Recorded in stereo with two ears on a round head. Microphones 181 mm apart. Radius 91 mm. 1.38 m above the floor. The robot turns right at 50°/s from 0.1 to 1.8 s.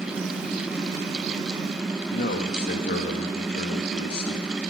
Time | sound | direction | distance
2.1 | a man speaking | 50° left (ahead or behind) | 1.5 m